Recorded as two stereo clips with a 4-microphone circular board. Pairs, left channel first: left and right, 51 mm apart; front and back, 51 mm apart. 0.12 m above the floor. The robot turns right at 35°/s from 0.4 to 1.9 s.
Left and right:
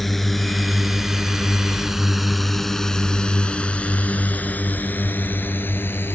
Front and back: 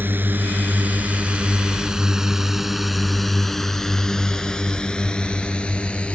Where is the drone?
175° left; by 6.1 s 60° left.